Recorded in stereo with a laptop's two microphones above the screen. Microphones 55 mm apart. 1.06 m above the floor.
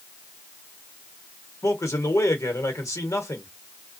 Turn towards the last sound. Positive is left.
turn(degrees=75)  # may be behind; listen again after turning